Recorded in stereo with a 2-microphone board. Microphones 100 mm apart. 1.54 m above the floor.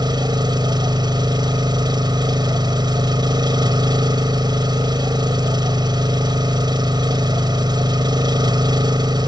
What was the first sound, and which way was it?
An engine running, 45° right (ahead or behind).